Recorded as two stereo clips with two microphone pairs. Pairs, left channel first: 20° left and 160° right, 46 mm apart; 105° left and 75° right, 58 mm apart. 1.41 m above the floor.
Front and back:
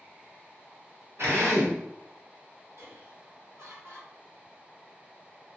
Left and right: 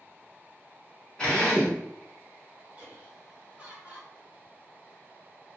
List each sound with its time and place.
1.2 s a drill: straight behind, 1.3 m
2.8 s laughter: 140° right, 1.6 m